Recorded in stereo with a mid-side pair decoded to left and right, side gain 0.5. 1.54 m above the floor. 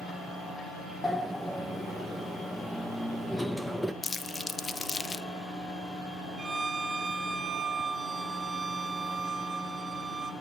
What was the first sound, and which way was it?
A sliding door, straight ahead.